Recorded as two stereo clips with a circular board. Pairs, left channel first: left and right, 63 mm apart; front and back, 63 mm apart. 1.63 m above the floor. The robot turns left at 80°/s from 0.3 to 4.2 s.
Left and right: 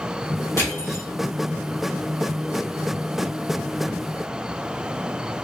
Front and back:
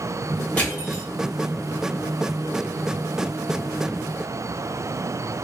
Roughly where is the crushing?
Ahead left.